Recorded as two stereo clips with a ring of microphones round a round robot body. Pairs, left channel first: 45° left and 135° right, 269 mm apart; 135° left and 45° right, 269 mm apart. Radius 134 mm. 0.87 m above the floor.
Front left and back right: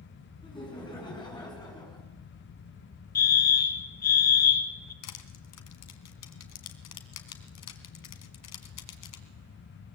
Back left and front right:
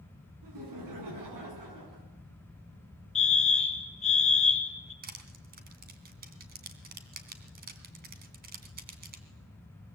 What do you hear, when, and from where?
0.4 s laughter: 30° right, 9 m
3.1 s a fire alarm: 80° left, 1.7 m
5.0 s crushing: 15° left, 2.5 m